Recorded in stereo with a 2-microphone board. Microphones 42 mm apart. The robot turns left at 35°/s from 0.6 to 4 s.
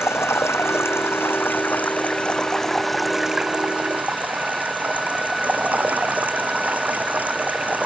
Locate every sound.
0.0 s running water: 80° left; by 7.9 s 40° right